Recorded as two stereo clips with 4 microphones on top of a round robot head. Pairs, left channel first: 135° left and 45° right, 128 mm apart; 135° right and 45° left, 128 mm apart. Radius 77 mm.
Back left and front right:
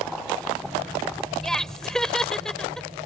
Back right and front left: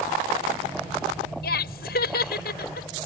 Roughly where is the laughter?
Behind right.